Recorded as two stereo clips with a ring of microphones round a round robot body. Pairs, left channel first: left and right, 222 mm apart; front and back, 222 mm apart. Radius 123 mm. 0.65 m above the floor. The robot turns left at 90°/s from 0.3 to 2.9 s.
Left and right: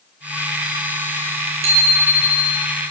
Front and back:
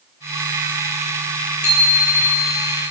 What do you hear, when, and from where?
1.6 s a bicycle bell: 60° right, 9 m; by 2.6 s 150° right, 9 m